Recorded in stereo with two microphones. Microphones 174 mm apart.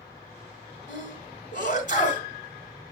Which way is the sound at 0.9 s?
50° left (ahead or behind).